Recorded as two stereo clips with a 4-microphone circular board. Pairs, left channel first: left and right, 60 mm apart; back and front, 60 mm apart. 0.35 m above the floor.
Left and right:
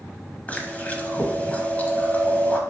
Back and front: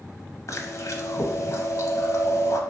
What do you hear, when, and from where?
0.5 s chewing: 155° left, 0.7 m